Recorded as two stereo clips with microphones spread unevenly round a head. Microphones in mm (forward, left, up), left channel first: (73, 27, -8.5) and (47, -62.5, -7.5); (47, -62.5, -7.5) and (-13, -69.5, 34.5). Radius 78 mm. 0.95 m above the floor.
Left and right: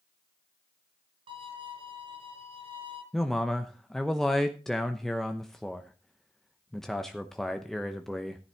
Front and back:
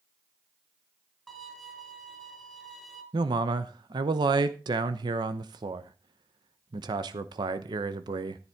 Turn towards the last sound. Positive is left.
turn(degrees=155)